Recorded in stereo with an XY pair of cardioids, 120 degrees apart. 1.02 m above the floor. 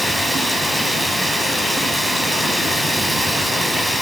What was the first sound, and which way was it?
Running water, straight ahead.